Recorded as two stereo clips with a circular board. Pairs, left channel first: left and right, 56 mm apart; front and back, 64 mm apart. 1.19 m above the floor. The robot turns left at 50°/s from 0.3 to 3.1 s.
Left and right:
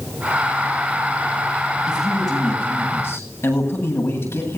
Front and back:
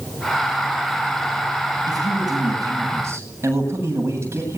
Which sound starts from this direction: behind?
A man speaking, at 1.9 s.